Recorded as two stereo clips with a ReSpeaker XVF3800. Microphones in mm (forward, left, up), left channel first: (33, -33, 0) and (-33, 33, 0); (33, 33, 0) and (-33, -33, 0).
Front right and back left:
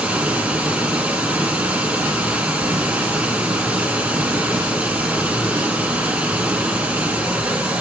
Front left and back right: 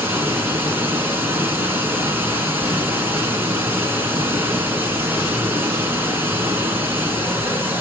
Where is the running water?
170° right, 1.2 m.